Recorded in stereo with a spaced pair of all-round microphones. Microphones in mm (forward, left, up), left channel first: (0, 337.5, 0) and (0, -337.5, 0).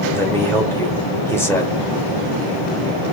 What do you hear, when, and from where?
0.1 s a man speaking: 5° left (ahead or behind), 1.5 m